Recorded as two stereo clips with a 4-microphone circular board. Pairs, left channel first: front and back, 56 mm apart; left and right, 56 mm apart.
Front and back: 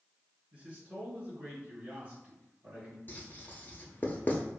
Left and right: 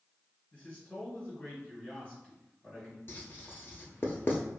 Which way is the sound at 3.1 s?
50° left.